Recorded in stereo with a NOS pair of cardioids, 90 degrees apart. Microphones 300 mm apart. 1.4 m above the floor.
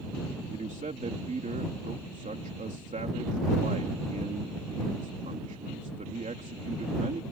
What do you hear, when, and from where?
0.5 s a man speaking: 25° right